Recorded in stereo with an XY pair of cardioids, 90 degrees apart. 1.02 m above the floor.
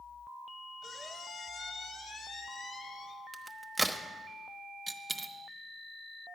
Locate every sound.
0.8 s a squeak: 65° left, 1.4 m
3.3 s a crack: 15° right, 1.0 m
4.9 s a dropped coin: 25° right, 0.9 m